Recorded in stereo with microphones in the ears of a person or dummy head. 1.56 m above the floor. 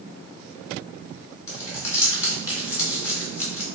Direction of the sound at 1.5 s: 20° left (ahead or behind).